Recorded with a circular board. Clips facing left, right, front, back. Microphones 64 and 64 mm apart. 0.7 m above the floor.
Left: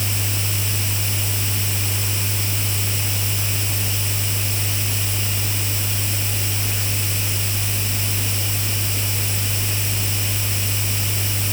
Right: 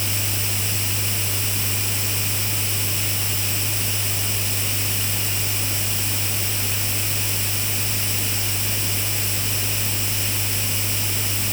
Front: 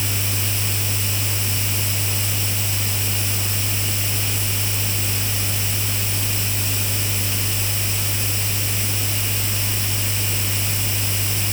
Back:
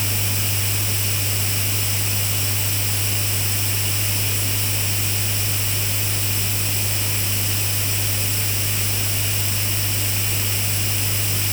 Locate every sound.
Only background noise.